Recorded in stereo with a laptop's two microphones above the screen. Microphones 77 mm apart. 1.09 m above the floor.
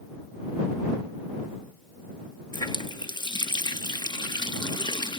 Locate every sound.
2.5 s a running tap: 75° left (ahead or behind)